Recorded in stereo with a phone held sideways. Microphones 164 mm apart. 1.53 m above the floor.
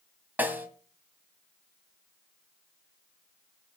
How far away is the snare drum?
About 1.5 m.